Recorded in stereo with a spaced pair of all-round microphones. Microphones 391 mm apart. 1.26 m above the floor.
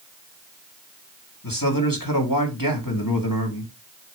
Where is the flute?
No flute in this recording.